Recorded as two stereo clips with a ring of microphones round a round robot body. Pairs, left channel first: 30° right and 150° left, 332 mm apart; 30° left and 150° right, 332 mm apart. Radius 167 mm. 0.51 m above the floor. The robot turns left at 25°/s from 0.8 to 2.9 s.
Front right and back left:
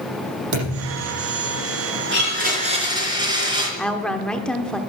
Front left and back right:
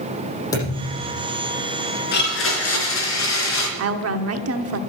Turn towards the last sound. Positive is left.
turn(degrees=-115)